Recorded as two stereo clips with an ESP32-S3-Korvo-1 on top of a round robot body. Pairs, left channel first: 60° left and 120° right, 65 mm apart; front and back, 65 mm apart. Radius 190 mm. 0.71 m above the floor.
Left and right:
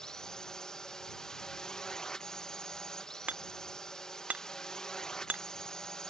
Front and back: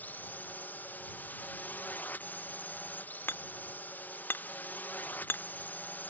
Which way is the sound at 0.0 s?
10° right.